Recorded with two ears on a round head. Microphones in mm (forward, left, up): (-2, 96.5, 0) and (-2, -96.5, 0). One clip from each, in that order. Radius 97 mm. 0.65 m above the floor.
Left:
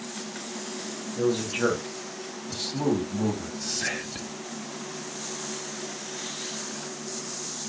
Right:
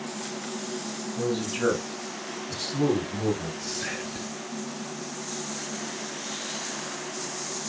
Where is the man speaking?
10° left (ahead or behind), 3 m; by 3.5 s 15° left (ahead or behind), 4.5 m.